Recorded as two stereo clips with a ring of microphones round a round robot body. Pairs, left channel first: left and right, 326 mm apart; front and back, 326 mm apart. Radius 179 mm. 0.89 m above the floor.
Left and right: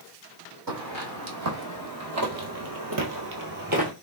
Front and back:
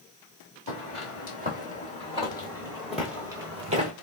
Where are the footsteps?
60° right, 1.9 m; by 3.9 s 135° right, 1.0 m.